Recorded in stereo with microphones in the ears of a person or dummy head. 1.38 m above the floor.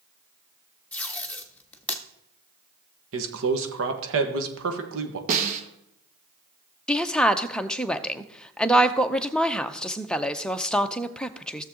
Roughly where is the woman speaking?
Centre.